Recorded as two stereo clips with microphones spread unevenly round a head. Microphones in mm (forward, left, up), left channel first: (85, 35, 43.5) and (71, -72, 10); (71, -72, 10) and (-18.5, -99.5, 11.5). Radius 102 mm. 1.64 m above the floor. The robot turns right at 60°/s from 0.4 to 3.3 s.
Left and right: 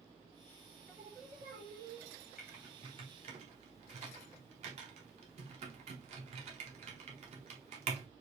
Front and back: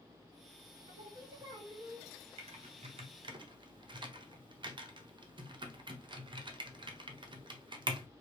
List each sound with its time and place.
0.9 s singing: 160° right, 1.3 m; by 2.1 s 90° right, 1.3 m
2.4 s typing on a keyboard: straight behind, 0.9 m; by 8.1 s 125° right, 0.9 m